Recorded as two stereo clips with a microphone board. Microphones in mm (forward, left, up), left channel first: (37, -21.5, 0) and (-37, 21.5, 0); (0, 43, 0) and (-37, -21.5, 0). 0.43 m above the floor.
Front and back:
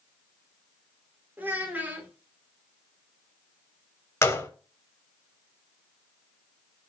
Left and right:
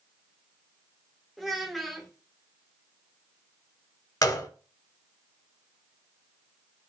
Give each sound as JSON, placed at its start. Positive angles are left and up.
{"t": 1.4, "sound": "a child speaking", "azimuth_deg": 150, "distance_m": 0.7}
{"t": 4.2, "sound": "a gunshot", "azimuth_deg": 25, "distance_m": 0.5}